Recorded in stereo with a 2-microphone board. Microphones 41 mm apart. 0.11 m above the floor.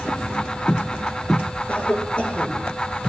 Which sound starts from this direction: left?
A cough, at 1.7 s.